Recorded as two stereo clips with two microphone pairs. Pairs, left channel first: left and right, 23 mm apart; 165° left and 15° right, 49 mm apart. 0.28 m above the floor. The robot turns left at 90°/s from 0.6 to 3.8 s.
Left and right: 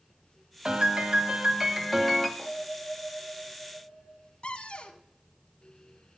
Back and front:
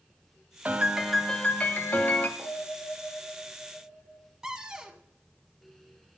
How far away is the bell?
About 5 m.